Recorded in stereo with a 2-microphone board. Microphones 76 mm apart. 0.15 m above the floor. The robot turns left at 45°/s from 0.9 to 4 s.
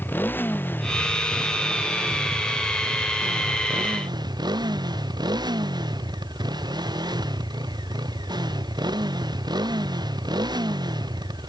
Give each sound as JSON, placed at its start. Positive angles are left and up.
{"t": 0.0, "sound": "a motorcycle", "azimuth_deg": 25}